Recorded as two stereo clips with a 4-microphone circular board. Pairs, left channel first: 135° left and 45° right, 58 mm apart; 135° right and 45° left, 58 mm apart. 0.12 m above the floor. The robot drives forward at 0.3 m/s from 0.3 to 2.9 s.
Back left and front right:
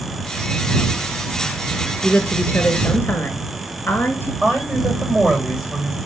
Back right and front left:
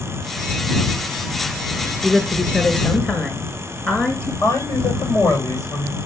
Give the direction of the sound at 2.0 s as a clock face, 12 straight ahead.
7 o'clock.